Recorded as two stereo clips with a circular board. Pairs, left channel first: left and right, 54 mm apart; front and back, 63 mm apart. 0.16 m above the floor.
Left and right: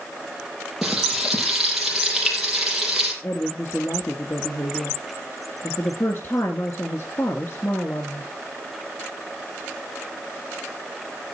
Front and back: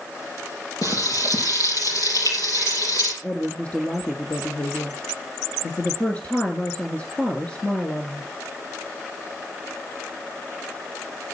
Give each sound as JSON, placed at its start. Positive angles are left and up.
{"t": 0.8, "sound": "frying", "azimuth_deg": -5, "distance_m": 5.5}
{"t": 3.2, "sound": "a woman speaking", "azimuth_deg": 65, "distance_m": 1.9}